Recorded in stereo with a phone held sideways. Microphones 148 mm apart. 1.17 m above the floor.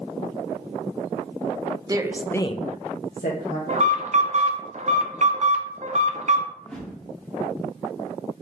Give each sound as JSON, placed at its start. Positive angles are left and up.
{"t": 1.9, "sound": "a woman speaking", "side_deg": -25, "distance_m": 0.9}
{"t": 3.7, "sound": "an alarm", "side_deg": -55, "distance_m": 0.8}
{"t": 6.6, "sound": "a whoosh", "side_deg": 5, "distance_m": 1.4}